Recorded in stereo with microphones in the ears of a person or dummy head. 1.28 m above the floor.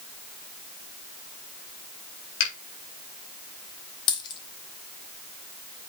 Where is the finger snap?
65° left (ahead or behind), 4 m.